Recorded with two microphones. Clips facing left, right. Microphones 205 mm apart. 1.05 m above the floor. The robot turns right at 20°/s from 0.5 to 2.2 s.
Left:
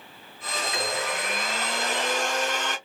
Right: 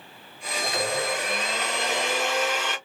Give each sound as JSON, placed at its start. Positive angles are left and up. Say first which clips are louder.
{"t": 0.6, "sound": "a blender", "louder": "right 3 dB", "azimuth_deg": -40, "distance_m": 2.0}